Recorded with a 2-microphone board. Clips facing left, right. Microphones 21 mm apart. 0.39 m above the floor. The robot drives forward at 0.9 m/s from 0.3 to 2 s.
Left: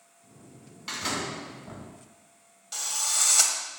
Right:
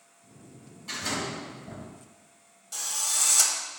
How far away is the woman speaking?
I don't hear a woman speaking.